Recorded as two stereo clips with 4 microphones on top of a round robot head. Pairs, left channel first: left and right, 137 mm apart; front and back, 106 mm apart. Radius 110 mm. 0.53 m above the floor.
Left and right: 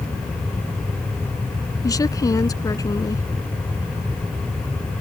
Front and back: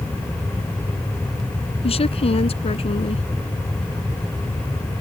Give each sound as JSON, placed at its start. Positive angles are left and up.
{"t": 1.8, "sound": "a woman speaking", "azimuth_deg": 25}